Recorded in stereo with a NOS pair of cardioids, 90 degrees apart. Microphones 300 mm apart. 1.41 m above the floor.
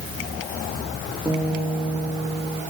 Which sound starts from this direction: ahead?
A guitar, at 1.2 s.